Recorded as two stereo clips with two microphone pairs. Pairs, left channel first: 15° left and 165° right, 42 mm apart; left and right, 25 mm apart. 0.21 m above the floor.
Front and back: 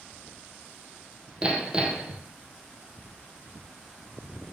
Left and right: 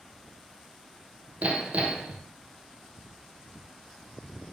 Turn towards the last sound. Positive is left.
turn(degrees=-100)